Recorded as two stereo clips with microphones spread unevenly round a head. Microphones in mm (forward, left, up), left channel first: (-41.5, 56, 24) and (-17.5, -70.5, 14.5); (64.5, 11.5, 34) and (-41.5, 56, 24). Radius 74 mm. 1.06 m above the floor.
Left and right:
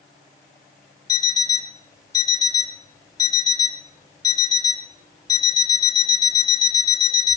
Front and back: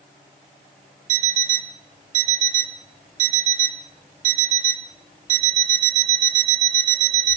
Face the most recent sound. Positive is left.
turn(degrees=160)